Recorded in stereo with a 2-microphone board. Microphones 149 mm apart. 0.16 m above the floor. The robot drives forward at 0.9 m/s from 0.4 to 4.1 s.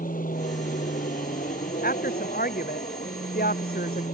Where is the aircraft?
70° left (ahead or behind); by 4.1 s 65° left (ahead or behind).